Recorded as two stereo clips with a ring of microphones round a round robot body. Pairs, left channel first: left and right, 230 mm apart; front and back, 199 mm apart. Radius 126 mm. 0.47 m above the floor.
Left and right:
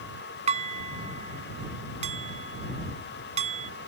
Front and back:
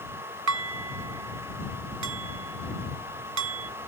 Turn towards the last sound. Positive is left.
turn(degrees=-155)